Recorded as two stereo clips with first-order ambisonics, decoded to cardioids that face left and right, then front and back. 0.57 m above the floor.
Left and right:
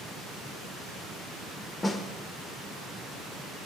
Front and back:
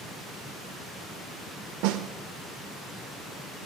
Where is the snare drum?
165° left, 0.6 m.